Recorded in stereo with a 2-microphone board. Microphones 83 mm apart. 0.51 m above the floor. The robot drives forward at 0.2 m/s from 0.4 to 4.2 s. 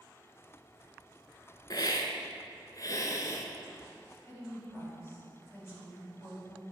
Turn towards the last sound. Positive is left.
turn(degrees=35)  # may be behind; listen again after turning